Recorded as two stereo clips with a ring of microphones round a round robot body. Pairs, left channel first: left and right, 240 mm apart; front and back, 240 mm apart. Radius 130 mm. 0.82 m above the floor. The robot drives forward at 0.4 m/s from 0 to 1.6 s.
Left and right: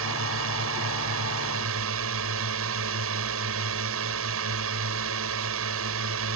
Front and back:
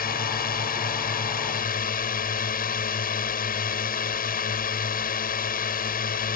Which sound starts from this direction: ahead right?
A drone, at 0.0 s.